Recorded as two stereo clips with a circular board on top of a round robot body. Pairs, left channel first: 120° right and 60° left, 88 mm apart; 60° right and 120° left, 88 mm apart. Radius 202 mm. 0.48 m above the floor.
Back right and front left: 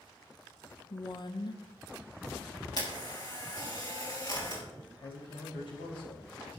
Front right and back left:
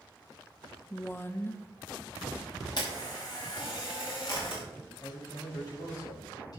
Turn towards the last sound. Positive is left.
turn(degrees=-100)